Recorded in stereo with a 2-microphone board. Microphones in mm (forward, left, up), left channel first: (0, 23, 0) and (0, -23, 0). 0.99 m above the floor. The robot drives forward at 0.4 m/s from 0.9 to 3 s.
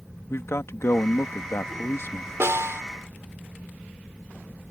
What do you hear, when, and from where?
0.3 s a man speaking: 70° left (ahead or behind); by 2.3 s 60° left (ahead or behind)
2.4 s a snare drum: 70° right (ahead or behind)